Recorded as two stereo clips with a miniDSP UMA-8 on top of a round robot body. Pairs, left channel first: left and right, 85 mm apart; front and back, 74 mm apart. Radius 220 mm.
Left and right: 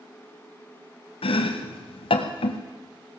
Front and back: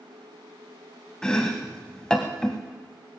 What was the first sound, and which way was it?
Chopping, 80° left.